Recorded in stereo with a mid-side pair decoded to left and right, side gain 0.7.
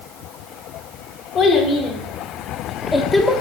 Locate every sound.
1.4 s a child speaking: 50° left, 2.5 m; by 3.4 s 10° left, 1.2 m